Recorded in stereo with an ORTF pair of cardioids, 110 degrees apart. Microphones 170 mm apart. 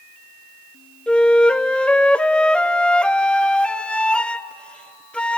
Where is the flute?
5° left, 0.5 m.